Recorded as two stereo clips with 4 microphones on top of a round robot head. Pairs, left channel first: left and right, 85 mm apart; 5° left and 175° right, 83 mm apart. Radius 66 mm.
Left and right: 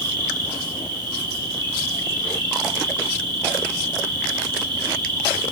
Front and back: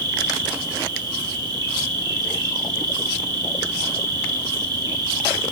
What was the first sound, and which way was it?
An insect, 130° right.